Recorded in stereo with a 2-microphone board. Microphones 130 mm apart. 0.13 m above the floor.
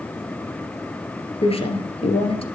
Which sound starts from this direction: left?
A woman speaking, at 1.4 s.